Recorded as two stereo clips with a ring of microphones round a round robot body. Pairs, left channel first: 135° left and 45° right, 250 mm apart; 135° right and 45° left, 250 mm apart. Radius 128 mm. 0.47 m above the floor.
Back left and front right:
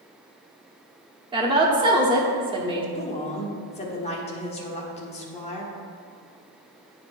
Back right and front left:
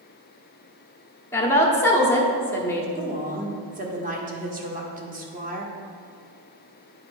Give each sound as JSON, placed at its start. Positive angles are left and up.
{"t": 1.3, "sound": "a woman speaking", "azimuth_deg": -70, "distance_m": 1.1}
{"t": 3.0, "sound": "a woman speaking", "azimuth_deg": 85, "distance_m": 1.2}